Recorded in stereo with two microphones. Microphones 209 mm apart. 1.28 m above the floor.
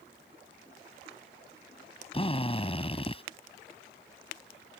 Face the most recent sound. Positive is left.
turn(degrees=30)  # may be behind; listen again after turning